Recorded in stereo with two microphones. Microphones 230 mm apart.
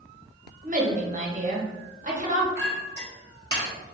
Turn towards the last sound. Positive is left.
turn(degrees=20)  # may be behind; listen again after turning